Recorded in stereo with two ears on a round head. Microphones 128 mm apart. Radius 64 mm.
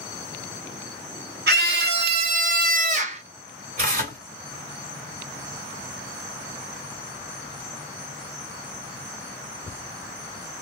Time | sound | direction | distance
1.5 | a scream | 75° right (ahead or behind) | 1.5 m
3.8 | tearing paper | 60° right (ahead or behind) | 2.5 m